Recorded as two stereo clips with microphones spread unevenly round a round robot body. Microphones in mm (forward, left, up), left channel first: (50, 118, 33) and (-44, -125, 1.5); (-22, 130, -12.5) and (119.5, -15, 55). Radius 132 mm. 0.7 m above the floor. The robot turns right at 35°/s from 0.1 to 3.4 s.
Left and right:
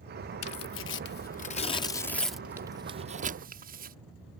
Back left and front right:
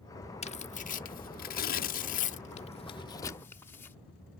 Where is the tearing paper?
95° left; by 4.0 s 160° right.